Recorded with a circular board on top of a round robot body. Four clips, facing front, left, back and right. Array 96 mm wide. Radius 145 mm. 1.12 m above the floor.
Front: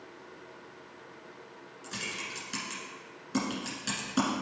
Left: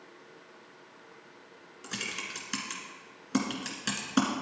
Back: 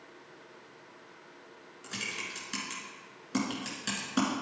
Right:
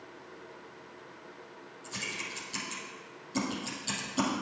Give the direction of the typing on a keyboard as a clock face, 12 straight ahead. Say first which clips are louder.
Left 1 dB, front 1 dB; 9 o'clock.